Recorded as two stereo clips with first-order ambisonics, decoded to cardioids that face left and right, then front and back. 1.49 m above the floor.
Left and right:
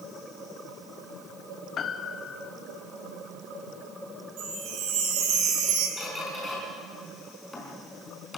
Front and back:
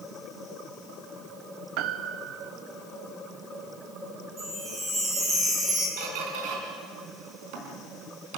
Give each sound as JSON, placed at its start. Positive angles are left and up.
{"t": 1.8, "sound": "a piano", "azimuth_deg": 150, "distance_m": 0.9}
{"t": 4.4, "sound": "a chime", "azimuth_deg": -115, "distance_m": 5.5}
{"t": 6.0, "sound": "a squeak", "azimuth_deg": 170, "distance_m": 4.0}